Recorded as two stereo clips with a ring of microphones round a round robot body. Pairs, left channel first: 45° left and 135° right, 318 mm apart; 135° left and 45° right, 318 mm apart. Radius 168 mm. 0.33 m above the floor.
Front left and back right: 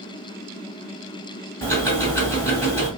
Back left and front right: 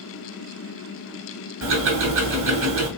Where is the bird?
I don't hear a bird.